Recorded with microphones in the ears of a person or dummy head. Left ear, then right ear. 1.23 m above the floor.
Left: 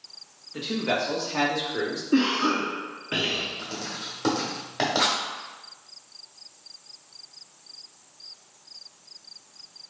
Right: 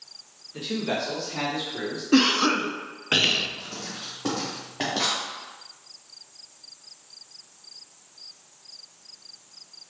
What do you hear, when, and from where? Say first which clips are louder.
0.5 s a man speaking: left 2 dB; 10° left (ahead or behind), 1.2 m; by 2.0 s 65° left (ahead or behind), 1.4 m
2.1 s a cough: right 3 dB; 35° right (ahead or behind), 0.5 m
3.6 s writing: left 2 dB; 45° left (ahead or behind), 1.6 m